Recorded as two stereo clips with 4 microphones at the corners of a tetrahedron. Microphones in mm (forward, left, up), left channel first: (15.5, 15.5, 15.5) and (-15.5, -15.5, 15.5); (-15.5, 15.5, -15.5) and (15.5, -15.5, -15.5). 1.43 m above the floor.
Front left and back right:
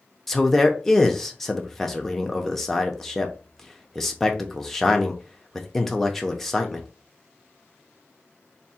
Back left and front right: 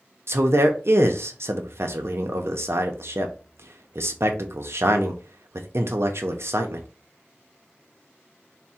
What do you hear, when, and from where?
0.3 s a man speaking: 35° right, 0.5 m